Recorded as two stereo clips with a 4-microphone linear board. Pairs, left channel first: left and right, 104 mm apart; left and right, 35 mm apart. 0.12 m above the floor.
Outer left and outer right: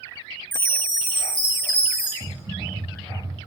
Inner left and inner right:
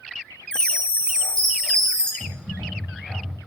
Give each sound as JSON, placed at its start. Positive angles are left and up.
{"t": 0.5, "sound": "a chime", "side_deg": 25, "distance_m": 0.7}
{"t": 2.2, "sound": "typing on a keyboard", "side_deg": -60, "distance_m": 1.6}